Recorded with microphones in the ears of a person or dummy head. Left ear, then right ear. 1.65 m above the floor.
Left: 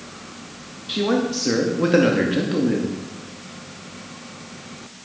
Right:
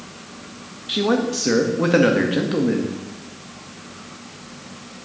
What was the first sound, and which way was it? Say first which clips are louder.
A man speaking: right 1 dB; 10° right (ahead or behind).